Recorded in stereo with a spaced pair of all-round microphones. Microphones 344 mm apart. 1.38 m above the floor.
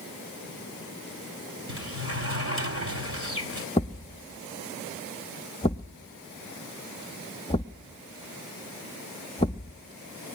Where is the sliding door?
40° right (ahead or behind), 1.6 m.